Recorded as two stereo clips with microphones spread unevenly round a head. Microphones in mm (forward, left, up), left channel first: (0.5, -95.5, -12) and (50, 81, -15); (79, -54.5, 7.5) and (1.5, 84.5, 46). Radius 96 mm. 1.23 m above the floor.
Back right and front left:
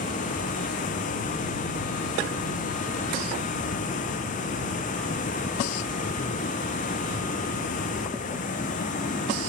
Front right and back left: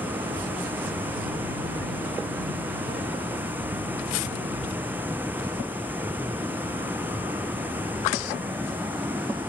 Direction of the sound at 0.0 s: 160° right.